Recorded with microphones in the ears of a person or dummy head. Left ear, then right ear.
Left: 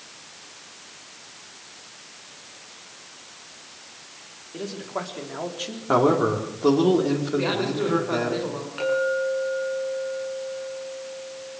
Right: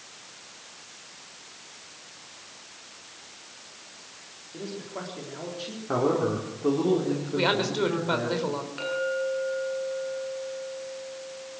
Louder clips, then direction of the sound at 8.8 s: Left 6 dB; 5° left (ahead or behind).